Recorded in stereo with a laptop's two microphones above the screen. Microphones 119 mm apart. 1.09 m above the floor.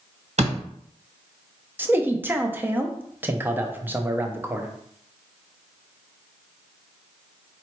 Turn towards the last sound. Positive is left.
turn(degrees=-15)  # may be behind; listen again after turning